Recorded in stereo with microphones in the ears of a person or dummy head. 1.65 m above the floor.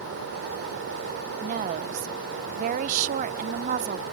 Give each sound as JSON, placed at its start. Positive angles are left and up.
{"t": 1.4, "sound": "a woman speaking", "side_deg": -40}